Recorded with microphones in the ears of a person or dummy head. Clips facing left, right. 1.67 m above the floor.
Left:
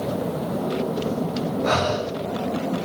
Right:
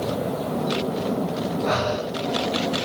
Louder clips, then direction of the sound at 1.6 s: Left 2 dB; 50° left (ahead or behind).